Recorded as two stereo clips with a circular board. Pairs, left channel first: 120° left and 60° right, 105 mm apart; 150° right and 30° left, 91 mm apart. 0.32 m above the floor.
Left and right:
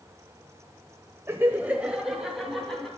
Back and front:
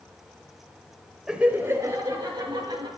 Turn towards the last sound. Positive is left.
turn(degrees=35)